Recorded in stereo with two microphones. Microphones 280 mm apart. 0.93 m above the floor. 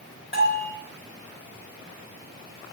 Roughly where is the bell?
Left.